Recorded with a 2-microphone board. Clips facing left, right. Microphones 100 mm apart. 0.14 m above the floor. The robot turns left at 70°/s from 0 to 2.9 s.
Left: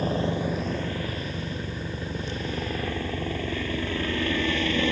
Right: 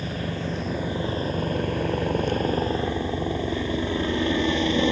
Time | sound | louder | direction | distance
0.0 | a helicopter | left 4 dB | 45° left | ?